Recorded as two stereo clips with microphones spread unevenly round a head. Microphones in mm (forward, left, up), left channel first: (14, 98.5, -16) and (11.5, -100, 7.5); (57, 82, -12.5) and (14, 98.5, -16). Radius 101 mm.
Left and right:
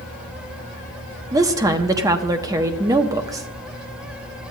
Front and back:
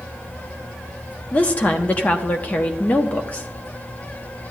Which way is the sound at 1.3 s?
25° right.